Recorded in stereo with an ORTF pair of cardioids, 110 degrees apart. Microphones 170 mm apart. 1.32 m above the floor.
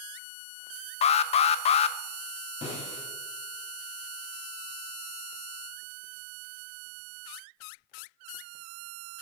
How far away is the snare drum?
About 4.5 m.